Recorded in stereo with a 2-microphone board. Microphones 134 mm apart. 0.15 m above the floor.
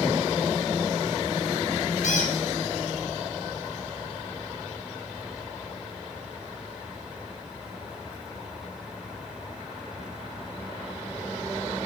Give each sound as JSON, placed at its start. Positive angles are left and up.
{"t": 2.0, "sound": "a squeak", "side_deg": 70, "distance_m": 3.0}